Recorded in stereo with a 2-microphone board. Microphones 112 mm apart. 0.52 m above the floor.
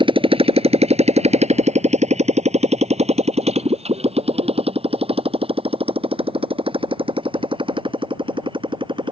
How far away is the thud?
I don't hear a thud.